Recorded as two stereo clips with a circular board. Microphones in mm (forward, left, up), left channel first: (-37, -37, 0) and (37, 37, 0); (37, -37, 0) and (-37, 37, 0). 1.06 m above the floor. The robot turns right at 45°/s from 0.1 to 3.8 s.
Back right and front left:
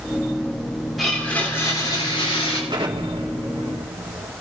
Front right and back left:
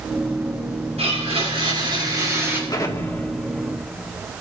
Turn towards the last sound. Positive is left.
turn(degrees=55)